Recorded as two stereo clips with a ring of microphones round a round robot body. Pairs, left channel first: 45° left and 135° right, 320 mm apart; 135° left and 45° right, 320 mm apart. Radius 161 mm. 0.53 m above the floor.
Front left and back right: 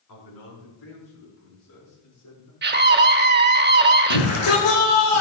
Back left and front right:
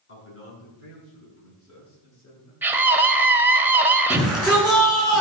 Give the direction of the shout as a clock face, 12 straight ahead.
10 o'clock.